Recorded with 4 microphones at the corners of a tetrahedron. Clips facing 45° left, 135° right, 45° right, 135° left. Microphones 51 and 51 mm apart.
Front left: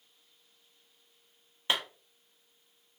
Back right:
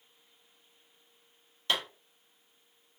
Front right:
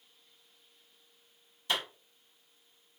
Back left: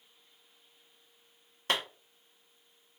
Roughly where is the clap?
Left.